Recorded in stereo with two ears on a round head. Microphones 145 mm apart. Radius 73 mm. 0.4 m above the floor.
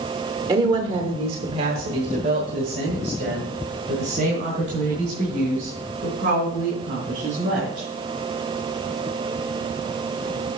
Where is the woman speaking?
20° right (ahead or behind), 0.9 m; by 7.9 s 45° right (ahead or behind), 4.5 m.